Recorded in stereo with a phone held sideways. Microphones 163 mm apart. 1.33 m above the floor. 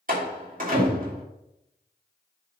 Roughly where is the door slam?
Right.